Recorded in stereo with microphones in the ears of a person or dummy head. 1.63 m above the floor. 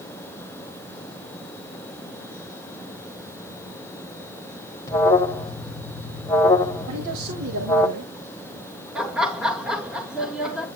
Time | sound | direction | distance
4.9 | an alarm | 20° left (ahead or behind) | 1.5 m
6.9 | a man speaking | 65° right (ahead or behind) | 1.6 m
8.9 | laughter | centre (ahead or behind) | 1.4 m